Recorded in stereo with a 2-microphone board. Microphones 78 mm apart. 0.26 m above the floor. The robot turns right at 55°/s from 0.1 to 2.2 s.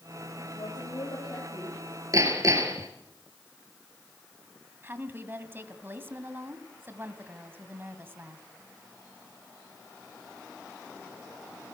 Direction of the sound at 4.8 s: 30° right (ahead or behind).